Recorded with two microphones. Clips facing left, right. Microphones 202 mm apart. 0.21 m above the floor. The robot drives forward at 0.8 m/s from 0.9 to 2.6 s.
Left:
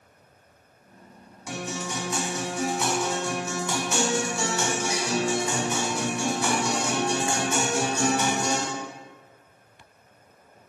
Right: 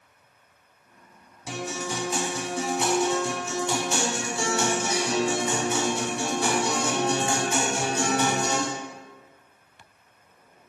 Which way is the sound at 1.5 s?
30° right (ahead or behind).